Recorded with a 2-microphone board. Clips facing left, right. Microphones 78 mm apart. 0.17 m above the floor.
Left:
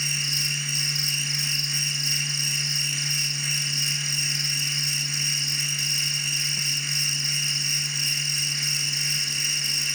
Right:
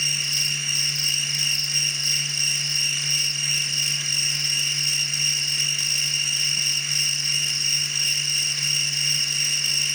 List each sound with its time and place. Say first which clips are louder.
0.0 s an insect: right 1 dB; 60° right (ahead or behind), 1.1 m